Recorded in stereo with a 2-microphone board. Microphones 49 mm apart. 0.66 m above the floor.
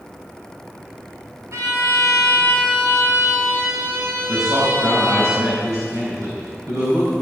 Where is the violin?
75° right (ahead or behind), 4 m.